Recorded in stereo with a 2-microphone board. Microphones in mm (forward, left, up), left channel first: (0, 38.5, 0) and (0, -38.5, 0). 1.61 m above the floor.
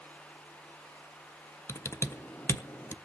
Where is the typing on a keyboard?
30° left (ahead or behind), 0.7 m.